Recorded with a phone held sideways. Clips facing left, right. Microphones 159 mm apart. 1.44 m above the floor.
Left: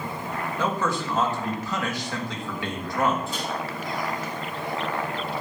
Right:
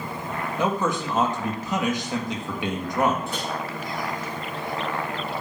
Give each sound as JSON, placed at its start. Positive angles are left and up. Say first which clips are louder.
{"t": 0.6, "sound": "a man speaking", "louder": "right 2 dB", "side_deg": -20, "distance_m": 1.5}
{"t": 3.3, "sound": "a microwave", "louder": "right 1 dB", "side_deg": -65, "distance_m": 5.0}